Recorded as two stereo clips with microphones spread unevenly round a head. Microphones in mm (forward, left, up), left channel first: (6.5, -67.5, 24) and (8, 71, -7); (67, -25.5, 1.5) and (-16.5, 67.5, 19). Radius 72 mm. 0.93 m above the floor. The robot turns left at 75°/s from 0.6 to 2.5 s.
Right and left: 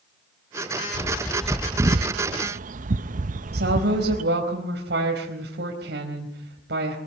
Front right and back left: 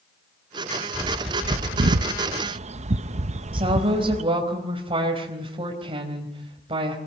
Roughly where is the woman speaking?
Left.